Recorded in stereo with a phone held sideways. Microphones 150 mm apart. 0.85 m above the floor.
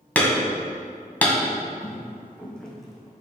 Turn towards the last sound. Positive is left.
turn(degrees=-5)  # may be behind; listen again after turning